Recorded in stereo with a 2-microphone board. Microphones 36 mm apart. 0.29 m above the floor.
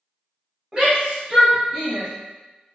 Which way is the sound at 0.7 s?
20° right (ahead or behind).